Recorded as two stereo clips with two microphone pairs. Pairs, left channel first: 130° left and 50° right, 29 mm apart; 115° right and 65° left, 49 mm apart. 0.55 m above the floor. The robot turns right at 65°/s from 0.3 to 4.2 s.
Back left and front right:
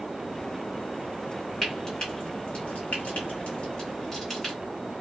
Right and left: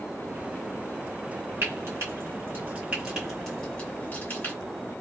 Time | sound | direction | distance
1.6 | frying | 45° left | 1.4 m